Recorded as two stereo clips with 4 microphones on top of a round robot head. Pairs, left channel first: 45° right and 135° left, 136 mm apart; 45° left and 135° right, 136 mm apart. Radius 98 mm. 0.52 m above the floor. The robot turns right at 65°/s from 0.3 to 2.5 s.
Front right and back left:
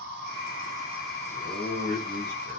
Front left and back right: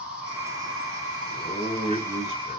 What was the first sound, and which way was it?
An insect, 140° left.